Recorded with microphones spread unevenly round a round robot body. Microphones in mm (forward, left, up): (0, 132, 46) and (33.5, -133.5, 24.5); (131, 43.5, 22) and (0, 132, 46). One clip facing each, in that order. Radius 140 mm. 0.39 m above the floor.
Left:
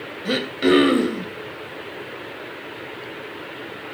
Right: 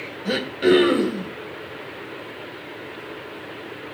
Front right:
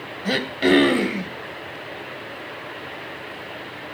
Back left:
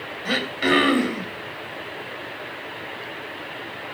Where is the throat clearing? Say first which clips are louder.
Even, front right 4 dB; 15° left, 2.5 m.